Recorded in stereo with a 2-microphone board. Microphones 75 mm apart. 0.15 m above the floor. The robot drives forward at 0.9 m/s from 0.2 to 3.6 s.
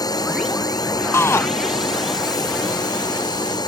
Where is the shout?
35° left (ahead or behind).